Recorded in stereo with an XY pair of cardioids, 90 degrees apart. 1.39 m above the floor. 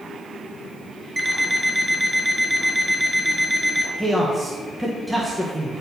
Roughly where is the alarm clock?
Ahead.